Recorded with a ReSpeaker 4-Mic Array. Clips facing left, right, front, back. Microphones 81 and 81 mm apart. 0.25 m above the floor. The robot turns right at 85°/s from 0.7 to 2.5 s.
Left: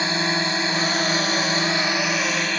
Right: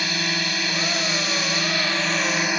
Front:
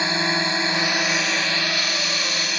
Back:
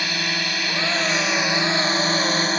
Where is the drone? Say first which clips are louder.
Left 4 dB, front 4 dB; 50° left; by 2.6 s 160° right.